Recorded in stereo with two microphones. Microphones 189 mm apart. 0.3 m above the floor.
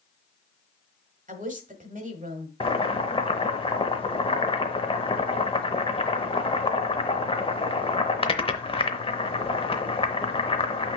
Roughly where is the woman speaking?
Right.